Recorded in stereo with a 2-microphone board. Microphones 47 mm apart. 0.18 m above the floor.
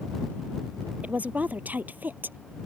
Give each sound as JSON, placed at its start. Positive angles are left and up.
{"t": 1.0, "sound": "a woman speaking", "side_deg": -35}